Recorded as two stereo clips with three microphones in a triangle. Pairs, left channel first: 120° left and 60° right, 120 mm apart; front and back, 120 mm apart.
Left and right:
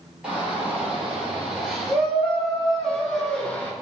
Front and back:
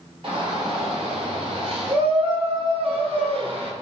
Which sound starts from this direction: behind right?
A shout, at 0.2 s.